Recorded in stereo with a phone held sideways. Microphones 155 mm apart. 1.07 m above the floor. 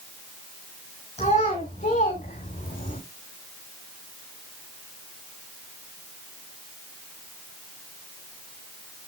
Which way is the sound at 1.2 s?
45° left (ahead or behind).